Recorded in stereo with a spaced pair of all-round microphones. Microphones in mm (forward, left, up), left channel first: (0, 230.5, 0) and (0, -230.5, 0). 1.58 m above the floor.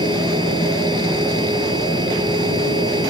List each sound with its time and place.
0.0 s a machine running: 10° right (ahead or behind)